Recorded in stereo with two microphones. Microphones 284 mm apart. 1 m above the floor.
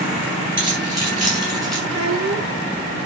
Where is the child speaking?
55° right (ahead or behind), 8.5 m.